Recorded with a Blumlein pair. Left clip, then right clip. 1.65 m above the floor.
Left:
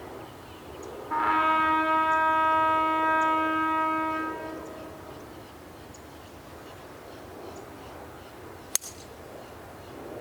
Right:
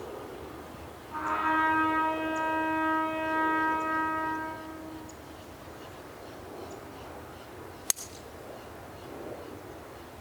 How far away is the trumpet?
About 4.5 m.